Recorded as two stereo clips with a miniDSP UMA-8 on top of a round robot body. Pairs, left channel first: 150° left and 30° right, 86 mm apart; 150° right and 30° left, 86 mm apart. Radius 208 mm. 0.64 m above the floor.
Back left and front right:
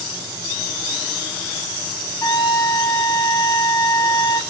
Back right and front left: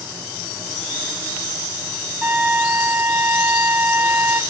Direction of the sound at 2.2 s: 105° left.